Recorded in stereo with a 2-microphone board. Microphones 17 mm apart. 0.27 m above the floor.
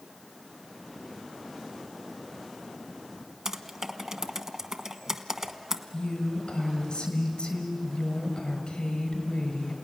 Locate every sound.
3.5 s typing on a keyboard: 30° right (ahead or behind), 1.2 m
5.9 s a woman speaking: 60° left (ahead or behind), 5.5 m